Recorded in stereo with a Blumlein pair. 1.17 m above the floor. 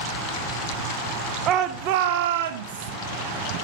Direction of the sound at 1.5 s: 30° right.